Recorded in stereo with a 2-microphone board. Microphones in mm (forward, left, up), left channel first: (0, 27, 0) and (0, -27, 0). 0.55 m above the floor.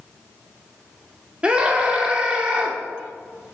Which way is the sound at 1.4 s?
20° right (ahead or behind).